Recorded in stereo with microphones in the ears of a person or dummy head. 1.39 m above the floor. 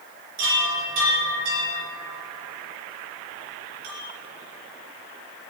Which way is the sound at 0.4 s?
70° right (ahead or behind).